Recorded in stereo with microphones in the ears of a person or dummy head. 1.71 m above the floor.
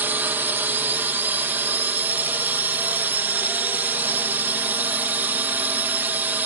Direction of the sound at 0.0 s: 5° right (ahead or behind).